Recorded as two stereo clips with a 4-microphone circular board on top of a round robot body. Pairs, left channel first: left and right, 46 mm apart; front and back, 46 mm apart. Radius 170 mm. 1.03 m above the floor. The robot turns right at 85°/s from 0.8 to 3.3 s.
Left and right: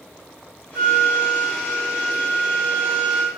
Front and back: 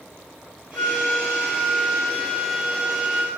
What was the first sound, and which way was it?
A flute, 65° right.